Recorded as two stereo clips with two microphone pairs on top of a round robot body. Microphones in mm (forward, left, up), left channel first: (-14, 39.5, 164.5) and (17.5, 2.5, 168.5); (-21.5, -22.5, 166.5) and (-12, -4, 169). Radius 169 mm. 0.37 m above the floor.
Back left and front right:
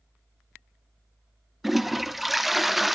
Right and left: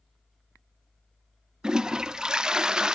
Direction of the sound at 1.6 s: 45° left.